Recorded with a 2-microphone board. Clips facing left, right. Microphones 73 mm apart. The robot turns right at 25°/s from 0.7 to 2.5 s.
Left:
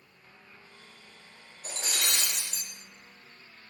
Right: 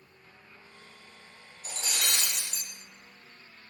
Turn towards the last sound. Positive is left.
turn(degrees=50)  # may be behind; listen again after turning